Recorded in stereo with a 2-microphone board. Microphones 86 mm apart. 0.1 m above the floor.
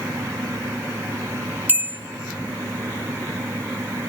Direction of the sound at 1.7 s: 20° right (ahead or behind).